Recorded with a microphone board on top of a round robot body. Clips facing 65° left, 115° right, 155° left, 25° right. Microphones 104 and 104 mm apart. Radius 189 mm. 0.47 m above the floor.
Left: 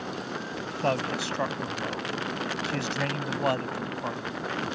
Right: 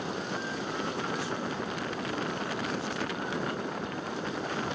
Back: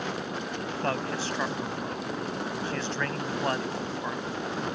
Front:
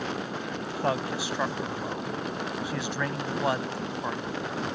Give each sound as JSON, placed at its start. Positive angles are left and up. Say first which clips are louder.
{"t": 0.7, "sound": "a man speaking", "louder": "left 9 dB, front 2 dB", "azimuth_deg": 55}